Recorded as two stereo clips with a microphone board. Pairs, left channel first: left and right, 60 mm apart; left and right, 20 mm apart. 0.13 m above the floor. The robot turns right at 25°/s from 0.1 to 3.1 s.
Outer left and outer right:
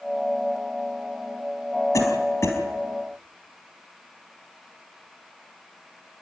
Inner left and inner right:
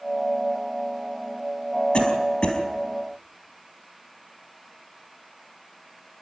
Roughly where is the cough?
Left.